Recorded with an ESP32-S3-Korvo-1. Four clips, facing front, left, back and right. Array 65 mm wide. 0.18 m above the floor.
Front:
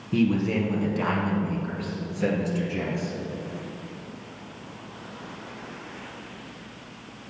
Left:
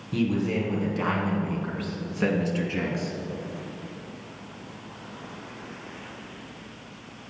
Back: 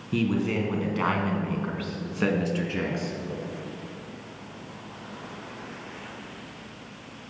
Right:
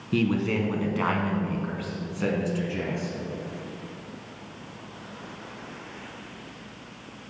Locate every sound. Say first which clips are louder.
0.1 s a man speaking: right 1 dB, front 2 dB; 105° right, 2 m; by 3.2 s 145° left, 2.5 m